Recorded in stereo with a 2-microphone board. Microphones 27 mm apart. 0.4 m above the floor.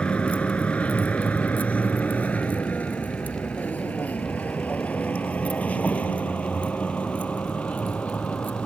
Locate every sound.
0.0 s a vehicle: 55° left (ahead or behind)